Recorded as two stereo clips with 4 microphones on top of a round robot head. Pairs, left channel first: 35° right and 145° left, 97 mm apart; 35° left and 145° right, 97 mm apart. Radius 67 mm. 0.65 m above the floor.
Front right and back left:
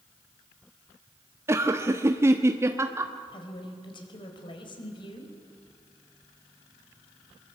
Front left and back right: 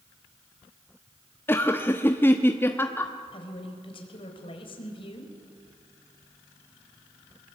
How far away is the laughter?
About 1.1 m.